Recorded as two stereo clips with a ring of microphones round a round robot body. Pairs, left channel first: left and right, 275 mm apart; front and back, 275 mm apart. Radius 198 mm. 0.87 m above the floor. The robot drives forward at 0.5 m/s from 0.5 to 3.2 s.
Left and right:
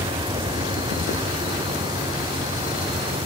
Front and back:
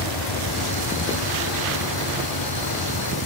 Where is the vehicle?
15° right.